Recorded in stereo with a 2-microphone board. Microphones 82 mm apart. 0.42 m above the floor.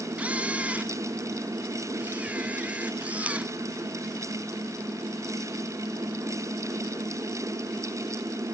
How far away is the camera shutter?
About 1.0 m.